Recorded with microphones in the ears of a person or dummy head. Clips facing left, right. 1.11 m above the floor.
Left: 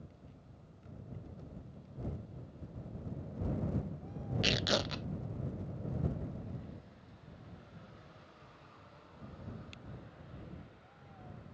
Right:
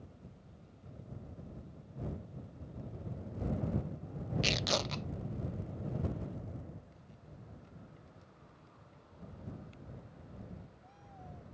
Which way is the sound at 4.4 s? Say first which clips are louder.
Left 3 dB; 5° left (ahead or behind).